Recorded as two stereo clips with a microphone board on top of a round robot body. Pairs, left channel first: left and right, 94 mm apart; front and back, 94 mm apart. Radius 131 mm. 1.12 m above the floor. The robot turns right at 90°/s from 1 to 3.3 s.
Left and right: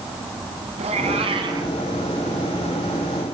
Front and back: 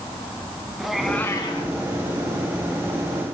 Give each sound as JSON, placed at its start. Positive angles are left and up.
{"t": 0.8, "sound": "a cat meowing", "azimuth_deg": -90, "distance_m": 2.5}